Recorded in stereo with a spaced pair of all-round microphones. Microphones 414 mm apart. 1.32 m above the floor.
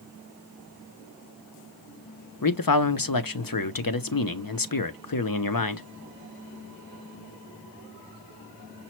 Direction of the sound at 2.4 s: 55° left (ahead or behind).